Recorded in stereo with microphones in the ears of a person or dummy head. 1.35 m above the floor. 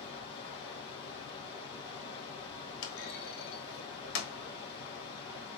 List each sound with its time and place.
0.0 s running water: 30° left (ahead or behind), 3 m
2.8 s a clunk: 80° left, 1.1 m